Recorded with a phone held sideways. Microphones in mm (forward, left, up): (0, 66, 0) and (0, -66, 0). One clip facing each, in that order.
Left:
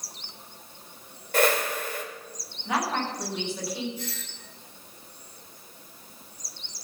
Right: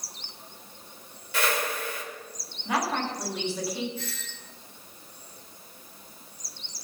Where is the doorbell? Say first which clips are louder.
Left 1 dB; 15° left (ahead or behind), 6 m.